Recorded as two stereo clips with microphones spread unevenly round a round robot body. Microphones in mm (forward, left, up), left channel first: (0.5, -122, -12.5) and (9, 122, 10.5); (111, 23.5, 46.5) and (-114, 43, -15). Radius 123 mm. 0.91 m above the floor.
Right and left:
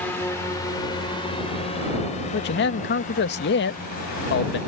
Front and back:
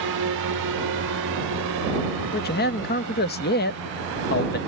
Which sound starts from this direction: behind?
A drone, at 0.0 s.